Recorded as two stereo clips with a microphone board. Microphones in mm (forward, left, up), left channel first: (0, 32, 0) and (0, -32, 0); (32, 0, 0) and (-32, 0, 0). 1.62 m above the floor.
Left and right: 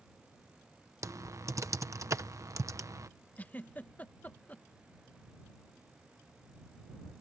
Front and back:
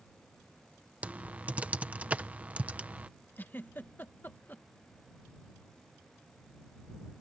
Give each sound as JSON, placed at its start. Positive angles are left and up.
{"t": 1.0, "sound": "typing on a keyboard", "azimuth_deg": -115}
{"t": 3.4, "sound": "a giggle", "azimuth_deg": 40}